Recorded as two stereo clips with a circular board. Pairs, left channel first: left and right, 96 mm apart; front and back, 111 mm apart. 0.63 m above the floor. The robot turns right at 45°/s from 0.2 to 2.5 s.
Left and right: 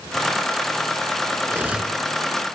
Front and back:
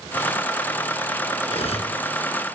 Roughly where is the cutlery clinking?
Ahead right.